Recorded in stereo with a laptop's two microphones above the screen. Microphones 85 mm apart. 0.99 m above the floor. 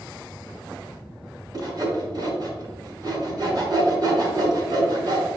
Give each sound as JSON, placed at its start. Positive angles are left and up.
{"t": 1.5, "sound": "sawing", "side_deg": -50, "distance_m": 2.5}